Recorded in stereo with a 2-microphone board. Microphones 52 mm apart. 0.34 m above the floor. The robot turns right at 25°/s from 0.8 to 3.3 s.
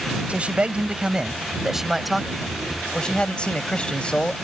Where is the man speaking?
35° right; by 4.4 s 30° left.